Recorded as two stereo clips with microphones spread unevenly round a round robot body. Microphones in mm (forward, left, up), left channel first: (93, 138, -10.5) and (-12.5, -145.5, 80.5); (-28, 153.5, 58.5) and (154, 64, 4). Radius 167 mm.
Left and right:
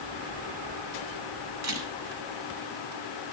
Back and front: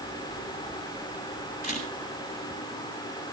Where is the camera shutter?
90° right, 6.5 m.